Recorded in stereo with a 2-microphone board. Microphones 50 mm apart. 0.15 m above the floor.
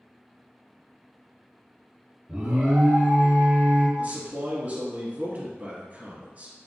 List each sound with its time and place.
2.3 s an alarm: 15° right (ahead or behind), 1.7 m
4.0 s a man speaking: 35° right (ahead or behind), 1.7 m